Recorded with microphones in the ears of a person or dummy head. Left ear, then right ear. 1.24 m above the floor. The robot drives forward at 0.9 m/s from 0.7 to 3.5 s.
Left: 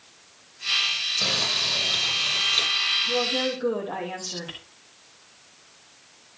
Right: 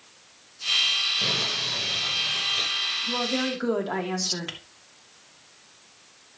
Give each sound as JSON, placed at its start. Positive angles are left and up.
{"t": 1.2, "sound": "crumpling", "side_deg": 20, "distance_m": 7.0}
{"t": 3.1, "sound": "a woman speaking", "side_deg": -70, "distance_m": 2.5}